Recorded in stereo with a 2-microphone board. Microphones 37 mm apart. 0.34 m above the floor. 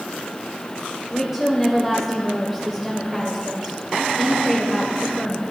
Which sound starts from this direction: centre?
A woman speaking, at 1.1 s.